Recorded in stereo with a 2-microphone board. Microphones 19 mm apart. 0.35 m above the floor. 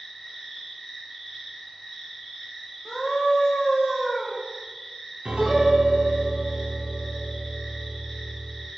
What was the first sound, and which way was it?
An insect, 15° left (ahead or behind).